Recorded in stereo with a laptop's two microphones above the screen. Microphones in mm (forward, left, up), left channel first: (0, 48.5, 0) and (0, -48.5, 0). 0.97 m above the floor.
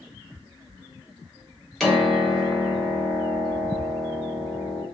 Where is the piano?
Centre (ahead or behind), 0.7 m.